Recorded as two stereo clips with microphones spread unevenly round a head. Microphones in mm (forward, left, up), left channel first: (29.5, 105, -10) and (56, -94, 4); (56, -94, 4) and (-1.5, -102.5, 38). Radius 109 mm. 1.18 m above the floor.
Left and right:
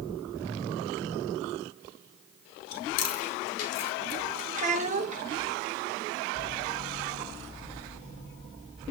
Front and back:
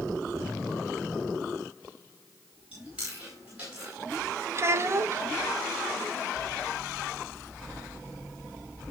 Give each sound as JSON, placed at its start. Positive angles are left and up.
{"t": 2.7, "sound": "chewing", "azimuth_deg": 100, "distance_m": 1.9}
{"t": 4.5, "sound": "a child speaking", "azimuth_deg": -140, "distance_m": 1.0}